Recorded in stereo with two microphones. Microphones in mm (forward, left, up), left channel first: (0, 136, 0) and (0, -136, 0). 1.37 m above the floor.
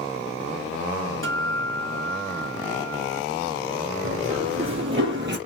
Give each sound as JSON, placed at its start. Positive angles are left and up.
{"t": 1.2, "sound": "a guitar", "side_deg": -50, "distance_m": 2.0}
{"t": 4.0, "sound": "running footsteps", "side_deg": -50, "distance_m": 2.5}